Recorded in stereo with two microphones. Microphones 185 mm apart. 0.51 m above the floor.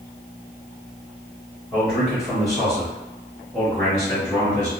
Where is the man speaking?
5° right (ahead or behind), 1.5 m; by 4.7 s 15° left (ahead or behind), 1.5 m.